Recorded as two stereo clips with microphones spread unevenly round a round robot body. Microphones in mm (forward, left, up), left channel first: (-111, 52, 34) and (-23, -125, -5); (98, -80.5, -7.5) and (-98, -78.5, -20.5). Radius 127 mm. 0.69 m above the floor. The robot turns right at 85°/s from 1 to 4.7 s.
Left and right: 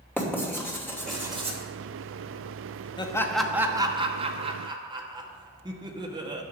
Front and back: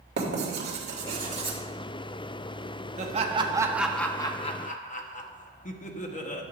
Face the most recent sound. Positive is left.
turn(degrees=-30)